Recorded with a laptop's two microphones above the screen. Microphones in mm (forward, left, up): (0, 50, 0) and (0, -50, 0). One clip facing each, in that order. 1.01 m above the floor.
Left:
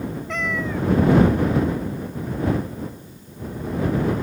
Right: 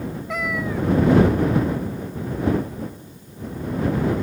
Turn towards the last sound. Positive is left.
turn(degrees=-10)  # may be behind; listen again after turning